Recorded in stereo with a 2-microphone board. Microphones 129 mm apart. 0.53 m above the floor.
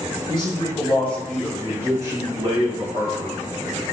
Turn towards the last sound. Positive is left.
turn(degrees=-55)  # may be behind; listen again after turning